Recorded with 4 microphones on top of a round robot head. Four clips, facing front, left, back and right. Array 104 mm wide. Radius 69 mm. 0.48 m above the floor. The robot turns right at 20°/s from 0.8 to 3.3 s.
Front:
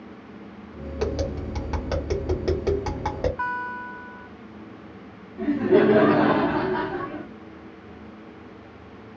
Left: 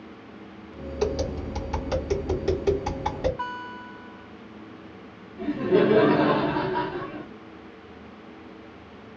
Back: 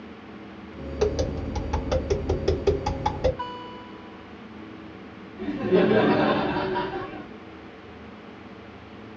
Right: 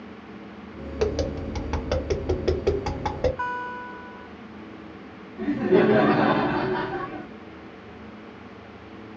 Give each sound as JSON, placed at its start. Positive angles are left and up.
{"t": 1.0, "sound": "tapping", "azimuth_deg": -90, "distance_m": 2.0}
{"t": 3.4, "sound": "a guitar", "azimuth_deg": -30, "distance_m": 1.0}
{"t": 5.4, "sound": "laughter", "azimuth_deg": -35, "distance_m": 0.9}